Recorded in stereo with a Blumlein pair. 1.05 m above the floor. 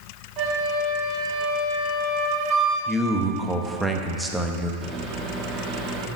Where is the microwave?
20° right, 1.5 m.